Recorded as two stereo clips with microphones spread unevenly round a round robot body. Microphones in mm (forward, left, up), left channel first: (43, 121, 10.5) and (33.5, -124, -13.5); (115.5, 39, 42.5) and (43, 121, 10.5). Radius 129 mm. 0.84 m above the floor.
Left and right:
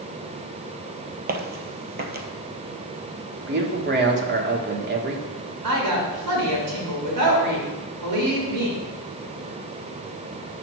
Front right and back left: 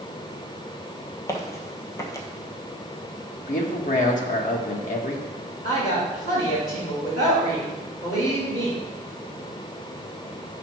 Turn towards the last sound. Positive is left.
turn(degrees=-100)